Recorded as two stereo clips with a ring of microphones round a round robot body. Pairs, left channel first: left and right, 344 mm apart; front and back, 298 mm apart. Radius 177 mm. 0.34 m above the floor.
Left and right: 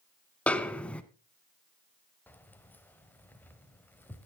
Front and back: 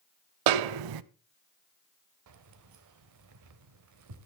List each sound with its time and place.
0.5 s a snare drum: 175° left, 0.5 m
2.3 s keys jangling: 175° left, 1.1 m